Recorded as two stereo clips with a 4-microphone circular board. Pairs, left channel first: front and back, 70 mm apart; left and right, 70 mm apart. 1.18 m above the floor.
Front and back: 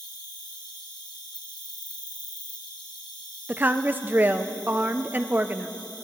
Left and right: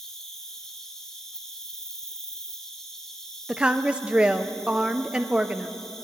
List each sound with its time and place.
0.0 s an insect: 10° left, 1.7 m
3.5 s a woman speaking: 150° right, 0.6 m